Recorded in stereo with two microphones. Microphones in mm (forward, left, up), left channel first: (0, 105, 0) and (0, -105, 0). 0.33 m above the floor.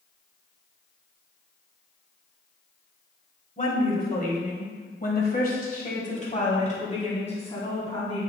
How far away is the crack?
No crack in this recording.